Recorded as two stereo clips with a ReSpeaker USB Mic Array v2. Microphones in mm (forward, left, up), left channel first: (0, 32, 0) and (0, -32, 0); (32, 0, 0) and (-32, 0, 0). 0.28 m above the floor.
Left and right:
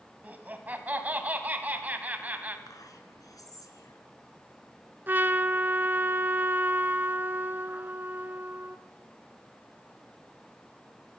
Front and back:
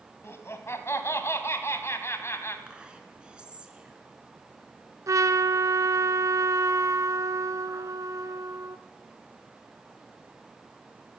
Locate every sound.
0.2 s laughter: 30° right, 2 m
2.7 s whispering: 105° left, 3.5 m
5.1 s a trumpet: 150° right, 0.9 m